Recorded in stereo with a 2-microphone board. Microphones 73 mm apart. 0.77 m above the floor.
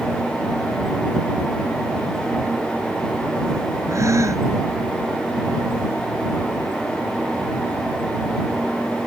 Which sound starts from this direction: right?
A gasp, at 3.9 s.